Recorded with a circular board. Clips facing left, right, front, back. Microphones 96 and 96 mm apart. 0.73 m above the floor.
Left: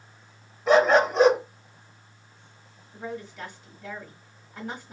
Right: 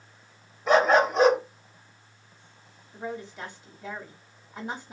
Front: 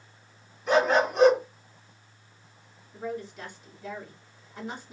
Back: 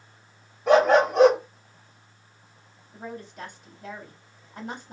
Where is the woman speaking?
170° right, 1.7 m.